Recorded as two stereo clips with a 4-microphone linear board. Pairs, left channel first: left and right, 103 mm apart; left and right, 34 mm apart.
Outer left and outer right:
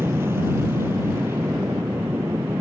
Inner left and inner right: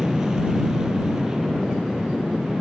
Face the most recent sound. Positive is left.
turn(degrees=-20)  # may be behind; listen again after turning